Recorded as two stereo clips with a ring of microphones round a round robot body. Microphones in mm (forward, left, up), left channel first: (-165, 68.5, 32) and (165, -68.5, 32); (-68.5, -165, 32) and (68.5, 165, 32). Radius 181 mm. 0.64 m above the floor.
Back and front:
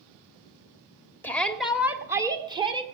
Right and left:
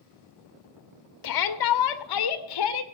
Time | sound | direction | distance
1.2 | a shout | 120° right | 1.4 m